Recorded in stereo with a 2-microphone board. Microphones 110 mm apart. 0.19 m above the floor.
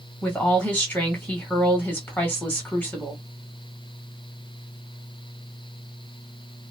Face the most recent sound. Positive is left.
turn(degrees=20)  # may be behind; listen again after turning